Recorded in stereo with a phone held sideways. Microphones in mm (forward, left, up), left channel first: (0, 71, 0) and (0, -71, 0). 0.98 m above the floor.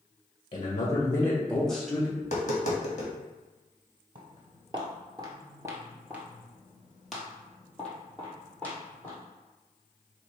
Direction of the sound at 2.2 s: 55° left (ahead or behind).